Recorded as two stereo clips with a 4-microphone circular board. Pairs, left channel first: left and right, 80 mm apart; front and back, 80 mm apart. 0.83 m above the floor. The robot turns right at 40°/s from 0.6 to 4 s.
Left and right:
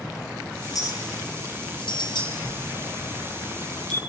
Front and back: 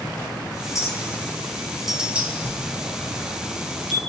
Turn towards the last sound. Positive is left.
turn(degrees=-85)